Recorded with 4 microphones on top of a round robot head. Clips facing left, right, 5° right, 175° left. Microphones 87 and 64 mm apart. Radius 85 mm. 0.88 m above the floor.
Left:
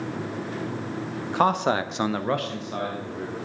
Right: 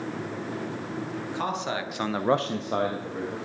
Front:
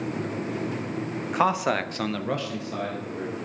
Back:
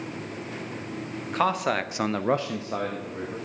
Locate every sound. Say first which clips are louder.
1.2 s a man speaking: left 10 dB, front 1 dB; 75° left, 1.3 m; by 3.4 s 120° right, 2.0 m